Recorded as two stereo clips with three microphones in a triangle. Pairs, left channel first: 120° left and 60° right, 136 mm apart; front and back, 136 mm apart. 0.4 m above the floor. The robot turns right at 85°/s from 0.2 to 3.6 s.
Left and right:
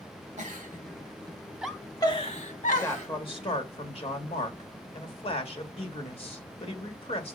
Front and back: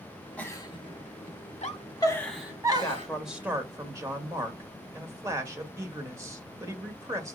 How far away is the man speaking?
About 1.6 m.